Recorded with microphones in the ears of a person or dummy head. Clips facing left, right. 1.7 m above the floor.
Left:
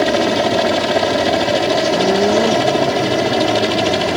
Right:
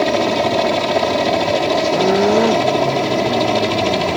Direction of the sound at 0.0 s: 5° left (ahead or behind).